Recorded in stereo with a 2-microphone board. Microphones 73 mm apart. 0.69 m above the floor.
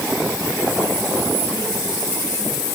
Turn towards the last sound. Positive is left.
No sound to turn to.